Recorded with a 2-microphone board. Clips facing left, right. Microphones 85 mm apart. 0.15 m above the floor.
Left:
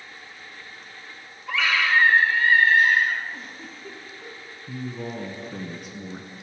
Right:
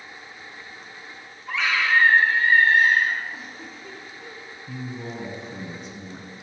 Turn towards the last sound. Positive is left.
turn(degrees=15)  # may be behind; listen again after turning